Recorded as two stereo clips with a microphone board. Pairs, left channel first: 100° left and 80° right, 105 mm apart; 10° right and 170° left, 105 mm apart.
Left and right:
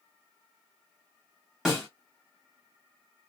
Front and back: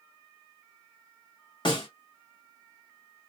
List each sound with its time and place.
1.6 s a snare drum: 5° left, 2.5 m